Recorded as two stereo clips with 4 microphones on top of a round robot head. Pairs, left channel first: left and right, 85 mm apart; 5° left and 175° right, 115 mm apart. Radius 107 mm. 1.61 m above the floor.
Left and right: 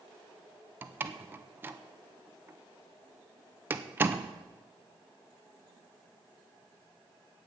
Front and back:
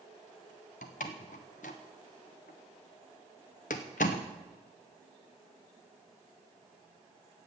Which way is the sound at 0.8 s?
30° right.